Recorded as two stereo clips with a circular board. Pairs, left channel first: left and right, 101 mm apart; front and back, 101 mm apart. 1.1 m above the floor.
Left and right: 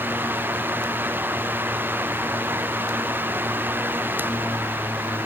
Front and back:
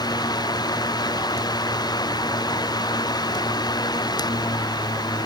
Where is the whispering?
I don't hear whispering.